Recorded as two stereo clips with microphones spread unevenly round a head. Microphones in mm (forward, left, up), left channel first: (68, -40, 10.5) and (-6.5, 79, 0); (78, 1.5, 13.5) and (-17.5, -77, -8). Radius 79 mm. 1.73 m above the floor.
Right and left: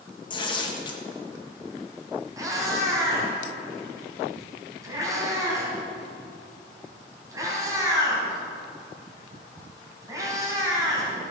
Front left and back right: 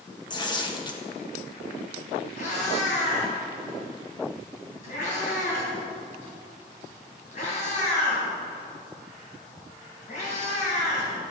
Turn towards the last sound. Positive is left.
turn(degrees=55)